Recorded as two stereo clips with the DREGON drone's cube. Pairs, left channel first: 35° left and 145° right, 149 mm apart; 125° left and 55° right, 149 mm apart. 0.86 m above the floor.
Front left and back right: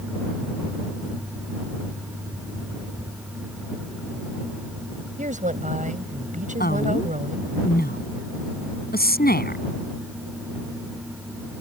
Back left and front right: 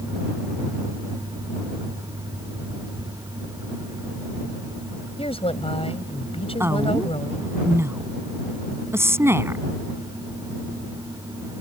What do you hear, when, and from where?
5.2 s a woman speaking: 175° left
6.6 s a woman speaking: 20° left